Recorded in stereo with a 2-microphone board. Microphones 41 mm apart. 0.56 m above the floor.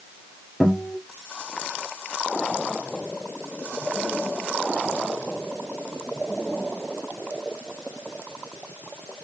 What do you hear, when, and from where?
0.6 s a guitar: centre (ahead or behind), 1.7 m